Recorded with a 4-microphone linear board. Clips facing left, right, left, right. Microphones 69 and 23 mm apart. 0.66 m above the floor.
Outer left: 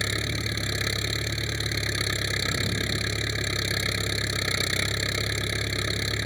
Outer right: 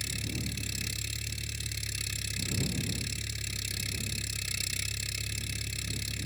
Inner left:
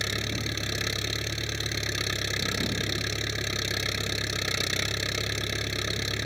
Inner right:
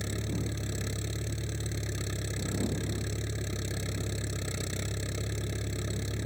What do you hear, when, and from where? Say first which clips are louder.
0.0 s an engine running: outer left 9 dB, inner left 6 dB; 60° left (ahead or behind)